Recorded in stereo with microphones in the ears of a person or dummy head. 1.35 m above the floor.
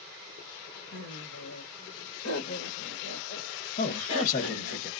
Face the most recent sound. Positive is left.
turn(degrees=45)  # may be behind; listen again after turning